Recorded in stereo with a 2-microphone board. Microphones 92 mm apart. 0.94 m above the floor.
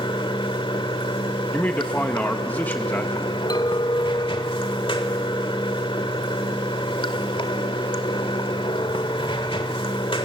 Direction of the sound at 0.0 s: 70° left (ahead or behind).